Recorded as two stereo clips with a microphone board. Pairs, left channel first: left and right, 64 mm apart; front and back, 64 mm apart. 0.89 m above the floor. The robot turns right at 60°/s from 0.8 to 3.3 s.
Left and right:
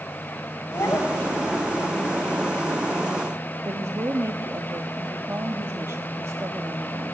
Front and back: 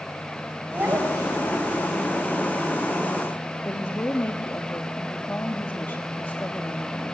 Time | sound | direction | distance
0.7 | a child speaking | 125° left | 3.5 m
3.6 | a woman speaking | 55° right | 1.4 m